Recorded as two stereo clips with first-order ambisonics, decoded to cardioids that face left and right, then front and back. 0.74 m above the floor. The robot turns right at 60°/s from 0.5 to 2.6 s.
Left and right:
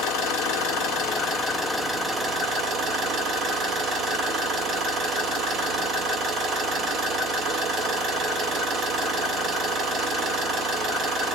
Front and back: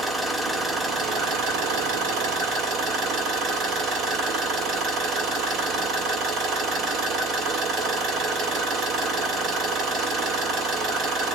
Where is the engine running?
100° left, 1.6 m; by 11.3 s 135° right, 1.6 m.